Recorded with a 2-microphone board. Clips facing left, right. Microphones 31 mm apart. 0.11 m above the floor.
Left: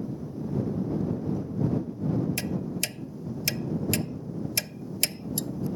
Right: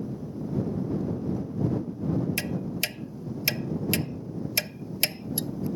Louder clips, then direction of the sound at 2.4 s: Right 1 dB; 20° right (ahead or behind).